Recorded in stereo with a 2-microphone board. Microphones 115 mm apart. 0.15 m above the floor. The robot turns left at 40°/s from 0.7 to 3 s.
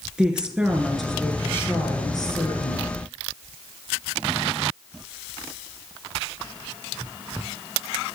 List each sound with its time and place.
0.2 s a woman speaking: 170° right, 2.5 m; by 2.9 s 100° left, 2.5 m